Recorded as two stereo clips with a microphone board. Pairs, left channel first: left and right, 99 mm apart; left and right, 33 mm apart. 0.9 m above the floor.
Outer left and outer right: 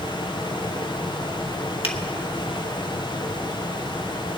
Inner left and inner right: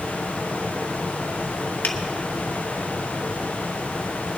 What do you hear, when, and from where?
1.8 s a finger snap: 75° left (ahead or behind), 1.5 m